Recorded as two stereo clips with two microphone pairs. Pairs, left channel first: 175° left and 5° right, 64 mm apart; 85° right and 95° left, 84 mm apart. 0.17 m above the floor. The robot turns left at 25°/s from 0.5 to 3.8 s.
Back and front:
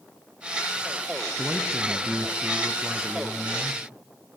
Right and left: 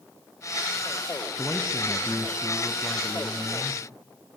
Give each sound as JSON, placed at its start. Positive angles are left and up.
{"t": 1.4, "sound": "a man speaking", "azimuth_deg": 0, "distance_m": 1.5}